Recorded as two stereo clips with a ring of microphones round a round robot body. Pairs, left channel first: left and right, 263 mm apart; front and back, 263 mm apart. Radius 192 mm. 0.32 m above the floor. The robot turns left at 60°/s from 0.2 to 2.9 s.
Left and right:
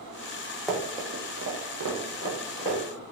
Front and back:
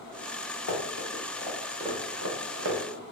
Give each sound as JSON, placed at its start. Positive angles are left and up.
{"t": 0.7, "sound": "running footsteps", "azimuth_deg": 0, "distance_m": 1.1}